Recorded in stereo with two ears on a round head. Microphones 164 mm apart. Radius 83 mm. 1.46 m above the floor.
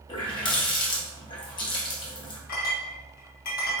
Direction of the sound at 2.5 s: 45° left (ahead or behind).